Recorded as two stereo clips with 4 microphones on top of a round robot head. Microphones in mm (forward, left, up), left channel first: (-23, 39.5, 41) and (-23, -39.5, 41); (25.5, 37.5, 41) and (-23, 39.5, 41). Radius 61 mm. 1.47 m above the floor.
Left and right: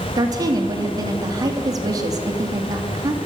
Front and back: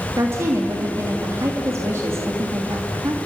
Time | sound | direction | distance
0.2 | a woman speaking | 130° right | 3 m